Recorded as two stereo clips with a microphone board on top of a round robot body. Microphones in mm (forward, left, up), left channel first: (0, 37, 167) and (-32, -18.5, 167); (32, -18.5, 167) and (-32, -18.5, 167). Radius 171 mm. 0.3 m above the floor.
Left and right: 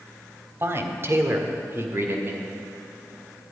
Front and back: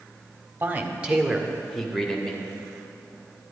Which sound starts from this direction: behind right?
A man speaking, at 0.6 s.